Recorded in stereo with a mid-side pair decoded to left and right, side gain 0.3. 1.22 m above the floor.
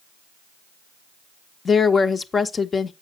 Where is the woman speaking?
55° left, 1.2 m.